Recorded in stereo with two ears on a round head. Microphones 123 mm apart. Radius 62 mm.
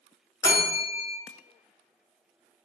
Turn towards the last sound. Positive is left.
turn(degrees=20)  # may be behind; listen again after turning